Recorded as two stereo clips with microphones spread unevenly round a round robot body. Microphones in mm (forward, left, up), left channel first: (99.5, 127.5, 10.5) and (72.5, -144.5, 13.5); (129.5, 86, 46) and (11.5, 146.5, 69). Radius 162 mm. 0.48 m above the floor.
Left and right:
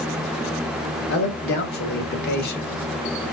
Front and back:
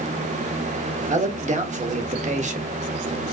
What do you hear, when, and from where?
1.1 s a man speaking: 135° left, 1.3 m